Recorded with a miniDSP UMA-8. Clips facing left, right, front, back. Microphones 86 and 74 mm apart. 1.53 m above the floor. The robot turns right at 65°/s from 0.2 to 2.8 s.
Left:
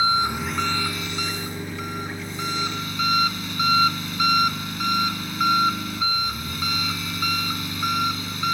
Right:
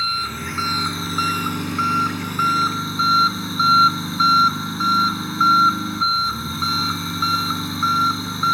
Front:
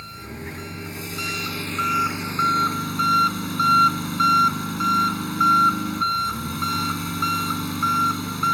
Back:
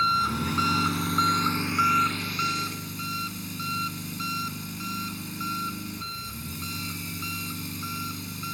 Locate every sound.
0.0 s an engine running: 160° left; by 8.6 s 30° right